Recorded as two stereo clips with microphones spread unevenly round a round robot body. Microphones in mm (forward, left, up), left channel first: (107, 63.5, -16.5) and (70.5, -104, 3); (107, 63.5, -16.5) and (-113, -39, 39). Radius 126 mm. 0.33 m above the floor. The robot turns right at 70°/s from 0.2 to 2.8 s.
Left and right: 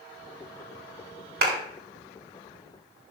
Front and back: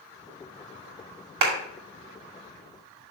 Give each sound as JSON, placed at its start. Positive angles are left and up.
{"t": 1.4, "sound": "a clap", "azimuth_deg": -150, "distance_m": 2.0}